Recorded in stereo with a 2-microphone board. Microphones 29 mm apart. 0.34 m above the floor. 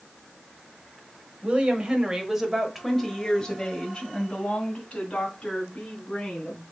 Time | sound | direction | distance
1.4 | a woman speaking | 45° right (ahead or behind) | 1.3 m